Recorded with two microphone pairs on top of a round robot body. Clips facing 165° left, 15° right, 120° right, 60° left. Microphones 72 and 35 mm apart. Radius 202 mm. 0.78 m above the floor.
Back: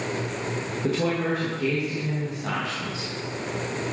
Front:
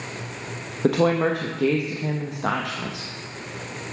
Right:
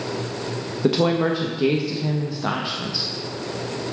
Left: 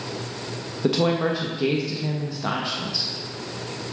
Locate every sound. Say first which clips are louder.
0.8 s a woman speaking: front 6 dB, right 2 dB; 35° right, 1.1 m